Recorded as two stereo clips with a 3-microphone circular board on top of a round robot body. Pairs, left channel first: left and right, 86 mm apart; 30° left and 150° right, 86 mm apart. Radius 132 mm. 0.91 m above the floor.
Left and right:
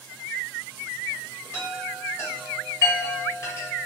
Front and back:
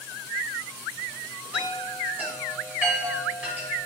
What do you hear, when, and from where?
1.5 s a chime: 145° left, 1.2 m